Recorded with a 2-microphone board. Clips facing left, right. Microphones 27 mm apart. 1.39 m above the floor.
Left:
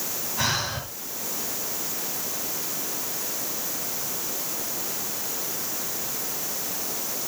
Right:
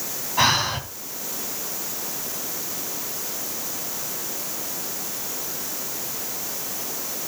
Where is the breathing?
45° right (ahead or behind), 3.5 m.